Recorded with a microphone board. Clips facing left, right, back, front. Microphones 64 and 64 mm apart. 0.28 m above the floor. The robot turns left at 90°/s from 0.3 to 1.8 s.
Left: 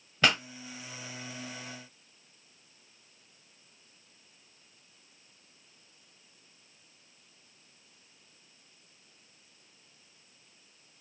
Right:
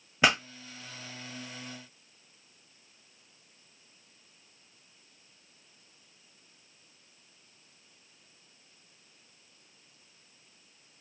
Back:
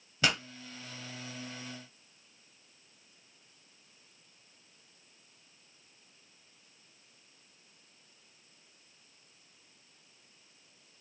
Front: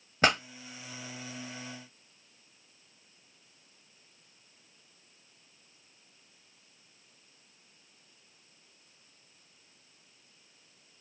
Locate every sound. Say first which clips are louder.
0.2 s a pop: right 1 dB, front 5 dB; 20° right, 0.9 m; by 0.4 s 30° right, 0.9 m